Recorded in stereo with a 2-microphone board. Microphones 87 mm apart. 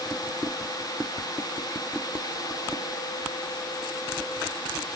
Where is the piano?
I don't hear a piano.